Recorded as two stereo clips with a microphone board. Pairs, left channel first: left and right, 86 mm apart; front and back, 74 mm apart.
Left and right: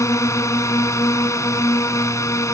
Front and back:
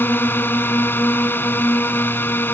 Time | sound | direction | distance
0.0 | a drone | 50° left | ?